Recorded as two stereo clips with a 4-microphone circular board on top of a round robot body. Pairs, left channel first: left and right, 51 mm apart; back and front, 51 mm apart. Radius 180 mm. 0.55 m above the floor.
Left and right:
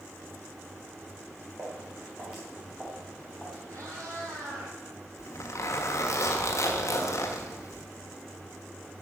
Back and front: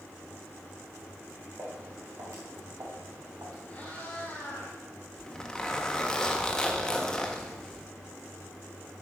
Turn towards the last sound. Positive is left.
turn(degrees=100)